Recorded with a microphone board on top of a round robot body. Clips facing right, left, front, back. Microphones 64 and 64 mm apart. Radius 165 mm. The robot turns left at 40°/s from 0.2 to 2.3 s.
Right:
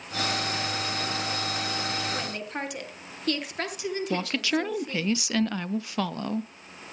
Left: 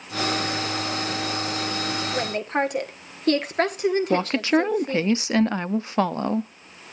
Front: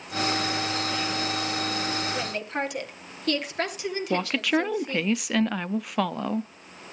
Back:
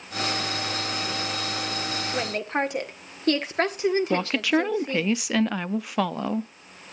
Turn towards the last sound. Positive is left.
turn(degrees=90)